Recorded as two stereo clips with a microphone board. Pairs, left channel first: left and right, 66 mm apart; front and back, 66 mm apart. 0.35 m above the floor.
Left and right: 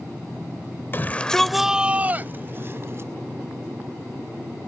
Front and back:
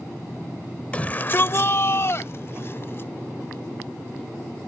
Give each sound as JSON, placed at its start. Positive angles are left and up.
{"t": 0.9, "sound": "a shout", "azimuth_deg": 60}